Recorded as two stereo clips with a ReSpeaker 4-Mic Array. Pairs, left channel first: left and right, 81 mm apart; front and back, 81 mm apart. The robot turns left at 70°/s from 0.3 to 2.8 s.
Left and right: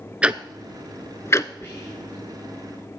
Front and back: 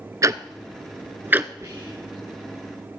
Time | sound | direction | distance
0.2 | ticking | 160° right | 0.6 m
1.6 | whispering | 140° left | 3.5 m